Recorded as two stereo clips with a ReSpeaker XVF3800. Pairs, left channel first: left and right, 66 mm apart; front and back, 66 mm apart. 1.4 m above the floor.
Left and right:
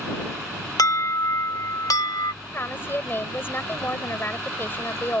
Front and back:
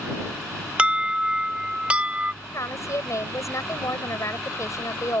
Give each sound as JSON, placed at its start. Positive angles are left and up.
{"t": 0.8, "sound": "an alarm", "azimuth_deg": 110}
{"t": 2.4, "sound": "a woman speaking", "azimuth_deg": 35}